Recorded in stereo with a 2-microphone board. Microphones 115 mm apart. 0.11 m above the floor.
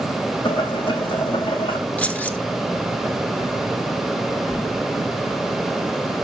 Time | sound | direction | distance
0.5 | boiling | 45° left (ahead or behind) | 5.5 m
2.0 | keys jangling | 15° left (ahead or behind) | 1.0 m